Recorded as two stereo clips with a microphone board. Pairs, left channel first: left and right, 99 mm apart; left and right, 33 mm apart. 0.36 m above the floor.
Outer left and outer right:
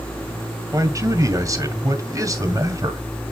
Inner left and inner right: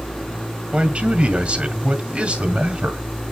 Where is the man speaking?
35° right (ahead or behind), 2 m.